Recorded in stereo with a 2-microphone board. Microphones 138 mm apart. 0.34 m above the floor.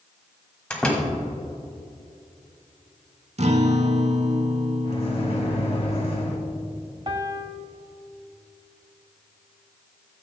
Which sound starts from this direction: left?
A microwave, at 4.8 s.